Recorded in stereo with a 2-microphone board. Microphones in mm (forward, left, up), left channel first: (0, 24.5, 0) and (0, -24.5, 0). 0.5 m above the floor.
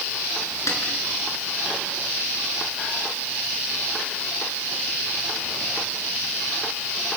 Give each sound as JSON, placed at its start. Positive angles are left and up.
{"t": 0.7, "sound": "a snare drum", "side_deg": 80, "distance_m": 5.5}